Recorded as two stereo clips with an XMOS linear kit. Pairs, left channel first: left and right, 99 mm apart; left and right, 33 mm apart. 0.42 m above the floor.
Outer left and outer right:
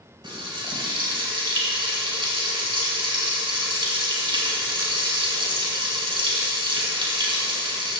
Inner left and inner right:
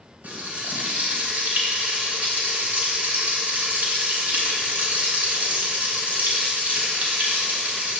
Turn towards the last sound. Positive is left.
turn(degrees=-55)  # may be behind; listen again after turning